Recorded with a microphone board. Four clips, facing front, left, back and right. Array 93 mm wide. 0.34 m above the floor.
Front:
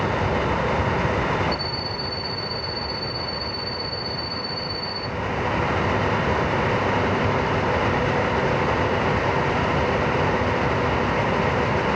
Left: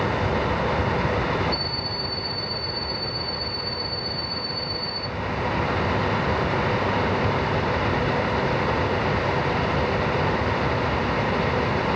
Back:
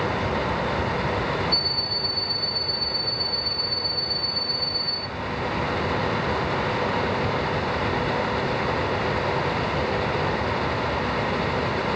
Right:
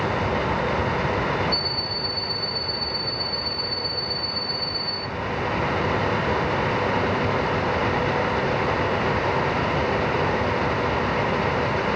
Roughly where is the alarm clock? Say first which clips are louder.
Right 1 dB, front 2 dB; ahead left.